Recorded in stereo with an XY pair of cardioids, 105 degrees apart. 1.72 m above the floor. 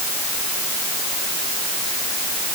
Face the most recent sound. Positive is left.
No sound to turn to.